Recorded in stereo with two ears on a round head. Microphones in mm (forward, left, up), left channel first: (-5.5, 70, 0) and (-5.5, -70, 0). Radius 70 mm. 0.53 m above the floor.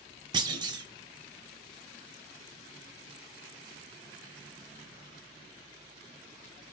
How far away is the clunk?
About 0.8 m.